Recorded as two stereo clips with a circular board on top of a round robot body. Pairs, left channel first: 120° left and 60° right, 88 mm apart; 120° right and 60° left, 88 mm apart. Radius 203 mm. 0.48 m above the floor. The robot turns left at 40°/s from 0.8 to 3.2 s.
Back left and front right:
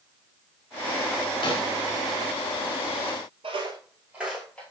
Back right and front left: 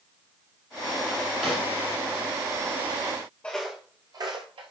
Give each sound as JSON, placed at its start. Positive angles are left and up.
{"t": 1.4, "sound": "a snare drum", "azimuth_deg": 145, "distance_m": 2.5}
{"t": 3.4, "sound": "footsteps", "azimuth_deg": -40, "distance_m": 0.9}